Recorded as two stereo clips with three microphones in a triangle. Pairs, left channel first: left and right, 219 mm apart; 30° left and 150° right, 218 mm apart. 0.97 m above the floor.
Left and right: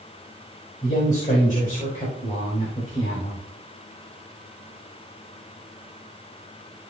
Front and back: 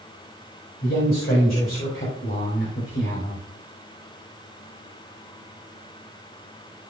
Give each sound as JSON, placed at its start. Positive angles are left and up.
{"t": 0.8, "sound": "a man speaking", "azimuth_deg": 40, "distance_m": 4.5}